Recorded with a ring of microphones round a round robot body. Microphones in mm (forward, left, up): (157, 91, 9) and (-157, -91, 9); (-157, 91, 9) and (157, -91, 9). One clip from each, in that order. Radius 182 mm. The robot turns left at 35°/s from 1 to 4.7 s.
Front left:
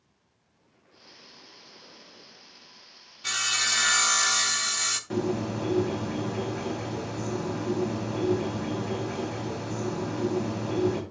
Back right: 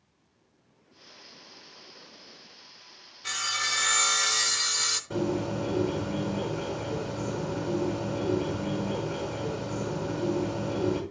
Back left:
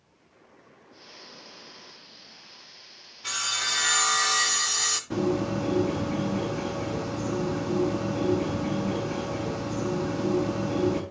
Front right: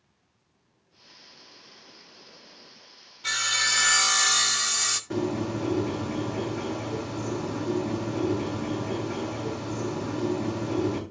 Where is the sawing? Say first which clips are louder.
Front left 3 dB, front right 3 dB; 20° left, 0.7 m; by 5.0 s 30° right, 0.7 m.